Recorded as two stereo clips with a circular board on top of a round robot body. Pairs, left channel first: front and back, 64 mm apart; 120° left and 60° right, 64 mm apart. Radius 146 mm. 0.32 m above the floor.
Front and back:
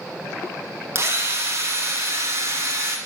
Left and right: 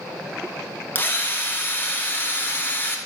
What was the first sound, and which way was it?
A drill, 165° left.